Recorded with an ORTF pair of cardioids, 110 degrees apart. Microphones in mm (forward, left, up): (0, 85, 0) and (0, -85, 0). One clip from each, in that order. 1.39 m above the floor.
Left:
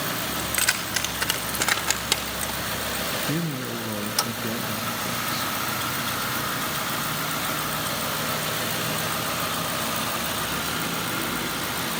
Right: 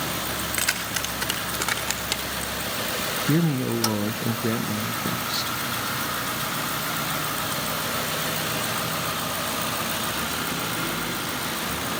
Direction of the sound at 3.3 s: 35° right.